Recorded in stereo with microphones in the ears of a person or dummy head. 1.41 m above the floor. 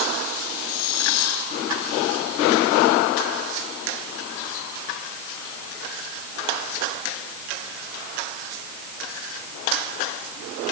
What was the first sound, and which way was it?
Only background noise.